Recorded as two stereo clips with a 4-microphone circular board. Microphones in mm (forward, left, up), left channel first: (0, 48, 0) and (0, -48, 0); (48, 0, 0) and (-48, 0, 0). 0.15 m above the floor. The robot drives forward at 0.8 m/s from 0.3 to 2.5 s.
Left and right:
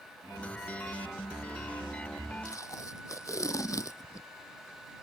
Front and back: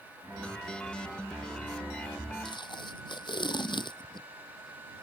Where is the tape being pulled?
35° left.